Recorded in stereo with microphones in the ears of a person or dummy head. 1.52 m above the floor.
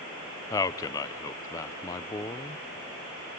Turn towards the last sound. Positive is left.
turn(degrees=20)  # may be behind; listen again after turning